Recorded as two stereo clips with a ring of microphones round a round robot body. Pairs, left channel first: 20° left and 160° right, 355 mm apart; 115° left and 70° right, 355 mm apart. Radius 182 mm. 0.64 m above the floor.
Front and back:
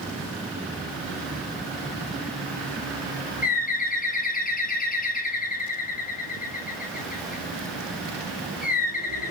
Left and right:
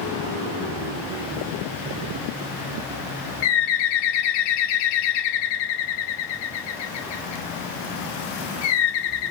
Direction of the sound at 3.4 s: 90° left.